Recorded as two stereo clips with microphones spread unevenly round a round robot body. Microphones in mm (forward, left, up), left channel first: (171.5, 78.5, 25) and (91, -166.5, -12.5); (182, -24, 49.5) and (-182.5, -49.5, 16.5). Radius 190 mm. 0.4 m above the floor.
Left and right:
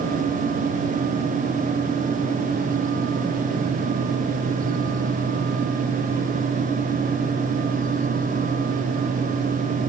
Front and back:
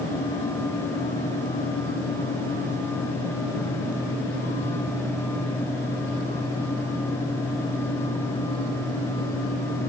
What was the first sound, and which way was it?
Only background noise.